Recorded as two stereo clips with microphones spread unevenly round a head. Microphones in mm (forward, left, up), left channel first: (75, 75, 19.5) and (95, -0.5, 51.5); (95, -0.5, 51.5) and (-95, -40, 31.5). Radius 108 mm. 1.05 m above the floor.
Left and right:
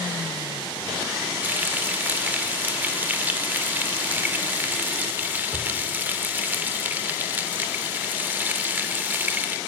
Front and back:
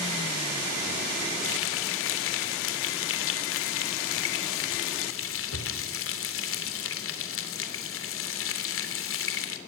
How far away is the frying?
About 3 m.